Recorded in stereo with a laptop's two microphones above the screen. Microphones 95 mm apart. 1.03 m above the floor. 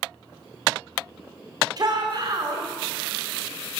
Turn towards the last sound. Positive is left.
turn(degrees=-45)  # may be behind; listen again after turning